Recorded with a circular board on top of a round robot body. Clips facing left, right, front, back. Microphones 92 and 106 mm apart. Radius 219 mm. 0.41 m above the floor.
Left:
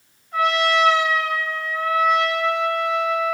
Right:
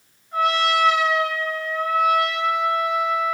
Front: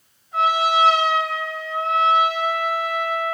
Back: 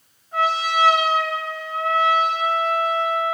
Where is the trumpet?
145° right, 3 m.